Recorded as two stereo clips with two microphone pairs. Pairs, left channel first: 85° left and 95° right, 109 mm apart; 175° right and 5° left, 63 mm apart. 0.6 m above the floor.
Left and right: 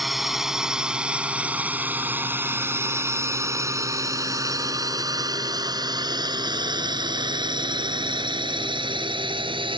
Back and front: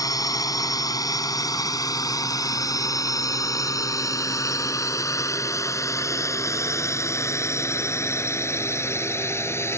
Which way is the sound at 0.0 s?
175° left.